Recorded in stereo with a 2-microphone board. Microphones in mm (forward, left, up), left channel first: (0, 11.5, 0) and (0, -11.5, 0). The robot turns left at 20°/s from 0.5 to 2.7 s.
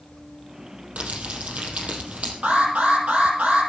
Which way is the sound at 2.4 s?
75° right (ahead or behind).